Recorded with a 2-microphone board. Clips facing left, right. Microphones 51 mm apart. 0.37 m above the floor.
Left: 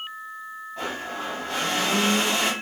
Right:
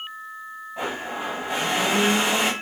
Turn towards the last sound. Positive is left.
turn(degrees=-15)  # may be behind; listen again after turning